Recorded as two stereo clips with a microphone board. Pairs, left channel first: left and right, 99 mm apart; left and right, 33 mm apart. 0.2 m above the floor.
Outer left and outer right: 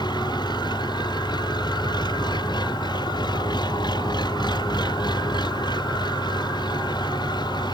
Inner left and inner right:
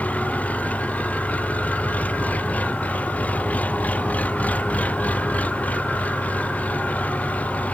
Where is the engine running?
45° left (ahead or behind).